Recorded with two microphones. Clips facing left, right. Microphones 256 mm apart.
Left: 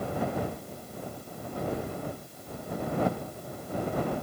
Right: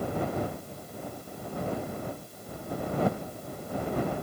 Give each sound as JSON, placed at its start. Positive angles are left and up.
{"t": 1.7, "sound": "keys jangling", "side_deg": 85}